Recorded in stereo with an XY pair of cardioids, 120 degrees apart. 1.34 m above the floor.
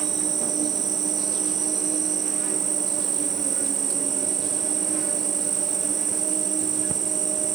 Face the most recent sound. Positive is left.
turn(degrees=-45)